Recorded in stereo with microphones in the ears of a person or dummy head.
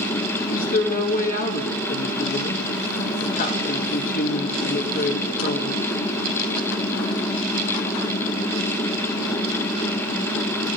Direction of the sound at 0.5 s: 40° left (ahead or behind).